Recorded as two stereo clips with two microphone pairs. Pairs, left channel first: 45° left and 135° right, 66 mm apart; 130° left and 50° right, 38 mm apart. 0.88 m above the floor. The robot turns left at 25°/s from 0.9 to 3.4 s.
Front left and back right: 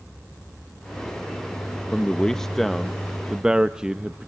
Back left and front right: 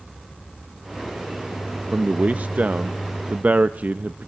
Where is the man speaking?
25° right, 0.6 m; by 4.3 s 60° right, 0.6 m.